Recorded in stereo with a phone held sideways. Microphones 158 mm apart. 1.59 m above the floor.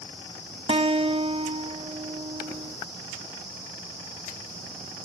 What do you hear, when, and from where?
0.7 s a guitar: 40° right (ahead or behind)